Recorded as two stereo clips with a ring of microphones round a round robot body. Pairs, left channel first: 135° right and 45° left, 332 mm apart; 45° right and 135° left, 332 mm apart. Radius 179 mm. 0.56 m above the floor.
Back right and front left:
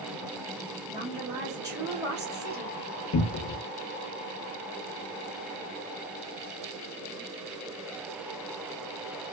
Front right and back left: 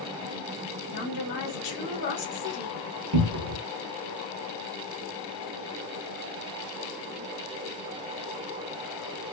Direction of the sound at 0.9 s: 50° right.